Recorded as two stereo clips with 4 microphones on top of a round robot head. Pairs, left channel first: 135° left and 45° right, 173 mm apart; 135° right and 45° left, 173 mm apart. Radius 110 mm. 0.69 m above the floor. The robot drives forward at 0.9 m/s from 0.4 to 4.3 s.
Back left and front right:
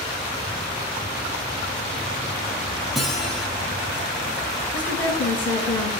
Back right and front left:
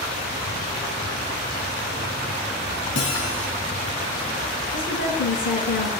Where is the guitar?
130° right, 4 m; by 3.5 s 135° right, 4.5 m.